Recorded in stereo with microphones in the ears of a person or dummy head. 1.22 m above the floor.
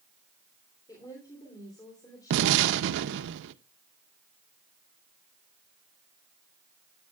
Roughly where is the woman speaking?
Left.